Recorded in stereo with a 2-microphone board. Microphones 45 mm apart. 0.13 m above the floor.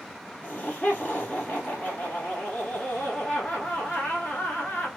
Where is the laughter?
35° left (ahead or behind), 1.3 m.